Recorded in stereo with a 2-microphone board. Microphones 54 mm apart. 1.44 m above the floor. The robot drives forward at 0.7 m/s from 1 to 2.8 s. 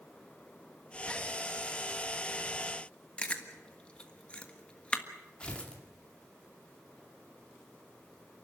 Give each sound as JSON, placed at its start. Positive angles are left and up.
{"t": 3.2, "sound": "chewing", "side_deg": 20, "distance_m": 1.5}
{"t": 5.4, "sound": "tearing paper", "side_deg": 20, "distance_m": 2.5}